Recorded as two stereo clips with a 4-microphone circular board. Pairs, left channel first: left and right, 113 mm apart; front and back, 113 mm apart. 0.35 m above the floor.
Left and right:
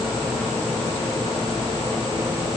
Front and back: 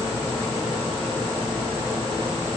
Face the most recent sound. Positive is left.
No sound to turn to.